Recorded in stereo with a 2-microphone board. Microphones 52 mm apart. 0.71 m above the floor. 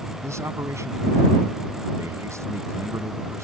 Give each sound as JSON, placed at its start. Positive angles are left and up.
{"t": 0.2, "sound": "a man speaking", "side_deg": -80}